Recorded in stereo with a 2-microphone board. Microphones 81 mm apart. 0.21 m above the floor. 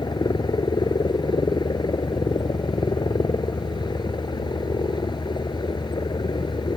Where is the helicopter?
70° left (ahead or behind).